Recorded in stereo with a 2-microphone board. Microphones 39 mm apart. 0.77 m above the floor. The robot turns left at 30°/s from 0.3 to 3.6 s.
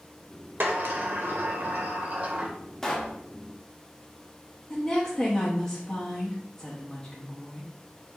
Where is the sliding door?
75° right, 0.8 m; by 2.6 s 135° right, 0.8 m.